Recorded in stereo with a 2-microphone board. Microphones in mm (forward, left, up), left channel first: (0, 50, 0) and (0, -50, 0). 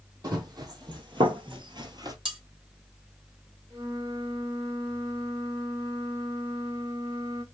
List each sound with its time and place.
0.2 s running footsteps: 40° right (ahead or behind), 2.0 m
2.2 s cutlery clinking: 55° right (ahead or behind), 1.9 m
3.7 s a flute: 35° right (ahead or behind), 2.5 m